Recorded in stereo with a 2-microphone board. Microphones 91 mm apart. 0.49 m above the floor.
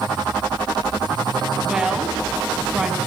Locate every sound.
1.6 s a woman speaking: 10° right (ahead or behind), 4 m